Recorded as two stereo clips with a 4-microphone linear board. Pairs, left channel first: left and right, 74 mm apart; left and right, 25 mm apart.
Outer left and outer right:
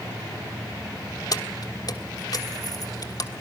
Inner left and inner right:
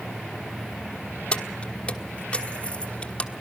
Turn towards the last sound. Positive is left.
turn(degrees=60)  # may be behind; listen again after turning